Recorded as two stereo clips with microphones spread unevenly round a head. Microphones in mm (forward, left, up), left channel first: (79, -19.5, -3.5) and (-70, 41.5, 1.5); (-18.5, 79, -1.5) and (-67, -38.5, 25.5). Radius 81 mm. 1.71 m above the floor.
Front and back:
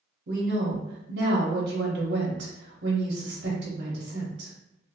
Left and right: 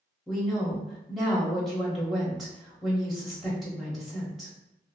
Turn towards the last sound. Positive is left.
turn(degrees=165)